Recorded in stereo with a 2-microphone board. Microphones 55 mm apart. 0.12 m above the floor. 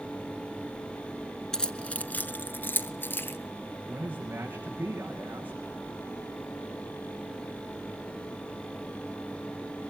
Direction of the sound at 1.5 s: 15° left (ahead or behind).